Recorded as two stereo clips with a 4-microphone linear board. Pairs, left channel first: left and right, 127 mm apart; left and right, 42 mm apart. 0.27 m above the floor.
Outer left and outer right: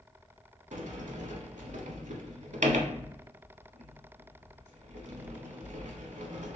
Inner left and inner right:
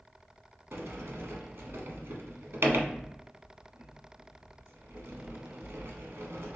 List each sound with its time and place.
0.7 s a sliding door: 75° right (ahead or behind), 0.7 m